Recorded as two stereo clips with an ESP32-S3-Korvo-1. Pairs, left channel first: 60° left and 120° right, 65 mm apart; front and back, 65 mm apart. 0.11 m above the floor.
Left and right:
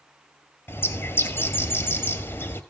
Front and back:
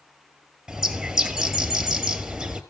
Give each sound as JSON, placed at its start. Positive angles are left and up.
{"t": 0.7, "sound": "a bird", "azimuth_deg": 100, "distance_m": 2.0}